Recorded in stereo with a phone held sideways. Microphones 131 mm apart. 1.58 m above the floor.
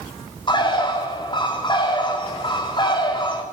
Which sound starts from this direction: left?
A bird, at 0.5 s.